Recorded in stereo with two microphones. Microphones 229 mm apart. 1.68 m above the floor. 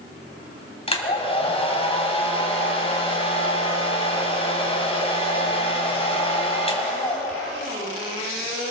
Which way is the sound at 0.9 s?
25° left (ahead or behind).